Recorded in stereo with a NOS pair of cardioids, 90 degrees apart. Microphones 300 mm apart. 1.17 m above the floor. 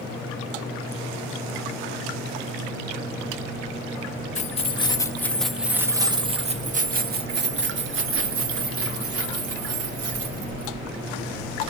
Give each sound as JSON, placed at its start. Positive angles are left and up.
{"t": 4.3, "sound": "keys jangling", "azimuth_deg": 25, "distance_m": 1.4}